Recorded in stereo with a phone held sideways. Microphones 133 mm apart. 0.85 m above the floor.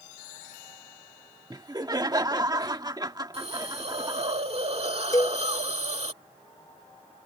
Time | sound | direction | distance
1.5 | laughter | 30° right (ahead or behind) | ?
3.3 | a hiss | 50° right (ahead or behind) | ?
5.1 | a cowbell | 25° left (ahead or behind) | ?